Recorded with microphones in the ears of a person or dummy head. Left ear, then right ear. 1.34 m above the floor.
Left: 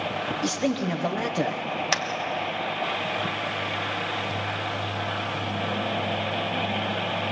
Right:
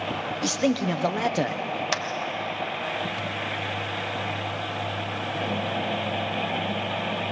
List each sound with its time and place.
0.4 s a man speaking: 20° right (ahead or behind), 0.9 m
1.9 s a clap: 5° left (ahead or behind), 1.2 m